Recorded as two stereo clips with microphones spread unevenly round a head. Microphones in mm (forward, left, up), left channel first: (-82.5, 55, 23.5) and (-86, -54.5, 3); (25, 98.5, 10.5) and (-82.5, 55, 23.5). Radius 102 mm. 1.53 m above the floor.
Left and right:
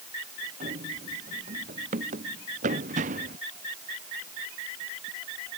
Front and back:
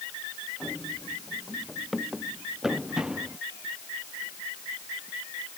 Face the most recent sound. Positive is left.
turn(degrees=-75)